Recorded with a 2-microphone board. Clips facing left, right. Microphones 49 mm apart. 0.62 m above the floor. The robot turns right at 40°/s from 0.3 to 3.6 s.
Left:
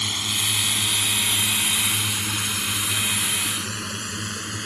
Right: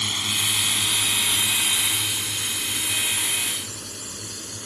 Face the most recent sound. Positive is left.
turn(degrees=75)  # may be behind; listen again after turning